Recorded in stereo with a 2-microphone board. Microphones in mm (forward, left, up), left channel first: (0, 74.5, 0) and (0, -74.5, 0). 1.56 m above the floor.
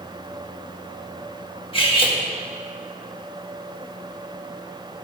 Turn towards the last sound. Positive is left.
turn(degrees=35)  # may be behind; listen again after turning